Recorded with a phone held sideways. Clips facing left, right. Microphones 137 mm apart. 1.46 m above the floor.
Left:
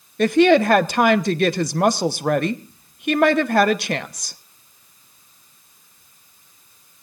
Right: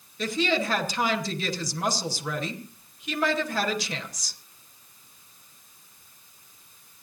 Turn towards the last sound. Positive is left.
turn(degrees=60)  # may be behind; listen again after turning